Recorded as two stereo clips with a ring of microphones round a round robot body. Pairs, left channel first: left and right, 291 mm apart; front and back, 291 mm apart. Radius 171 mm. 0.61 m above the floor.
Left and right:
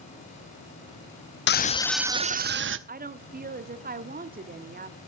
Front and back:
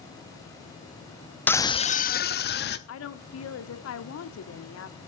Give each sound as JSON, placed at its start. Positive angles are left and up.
{"t": 1.5, "sound": "a scream", "azimuth_deg": 80, "distance_m": 0.6}
{"t": 2.9, "sound": "a woman speaking", "azimuth_deg": -35, "distance_m": 1.4}